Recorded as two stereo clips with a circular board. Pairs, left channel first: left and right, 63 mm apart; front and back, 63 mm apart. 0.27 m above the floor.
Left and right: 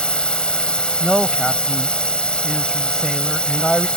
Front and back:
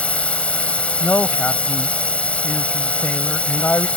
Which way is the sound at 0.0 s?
35° left.